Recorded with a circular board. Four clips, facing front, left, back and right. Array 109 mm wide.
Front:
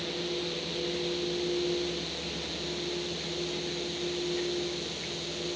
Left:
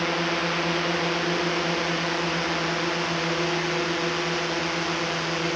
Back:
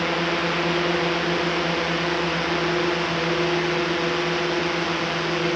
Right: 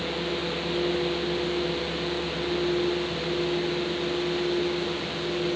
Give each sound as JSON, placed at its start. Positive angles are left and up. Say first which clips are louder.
{"t": 0.0, "sound": "a drone", "louder": "left 4 dB, back 11 dB", "azimuth_deg": 150}